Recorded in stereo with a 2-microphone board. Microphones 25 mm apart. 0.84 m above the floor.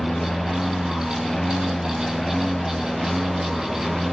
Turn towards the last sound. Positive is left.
turn(degrees=15)  # may be behind; listen again after turning